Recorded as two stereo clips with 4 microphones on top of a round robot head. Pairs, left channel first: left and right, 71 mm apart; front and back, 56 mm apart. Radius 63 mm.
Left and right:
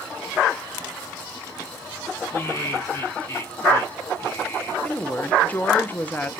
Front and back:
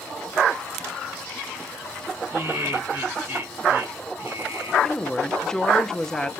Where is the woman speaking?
65° left, 1.0 m.